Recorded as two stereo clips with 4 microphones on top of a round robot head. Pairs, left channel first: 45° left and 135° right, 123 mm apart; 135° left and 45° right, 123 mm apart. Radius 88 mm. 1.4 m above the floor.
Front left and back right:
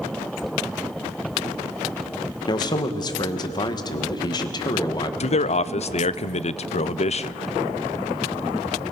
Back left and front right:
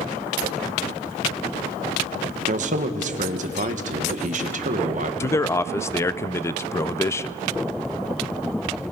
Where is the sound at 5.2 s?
70° left, 0.6 m.